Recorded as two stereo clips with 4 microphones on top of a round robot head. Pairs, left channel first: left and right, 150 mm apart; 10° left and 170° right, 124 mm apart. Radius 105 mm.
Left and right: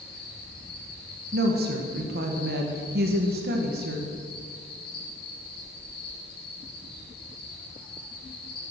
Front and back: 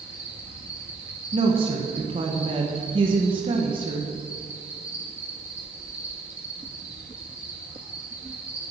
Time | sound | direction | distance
0.0 | an insect | 115° left | 6.5 m
1.3 | a woman speaking | 115° right | 1.6 m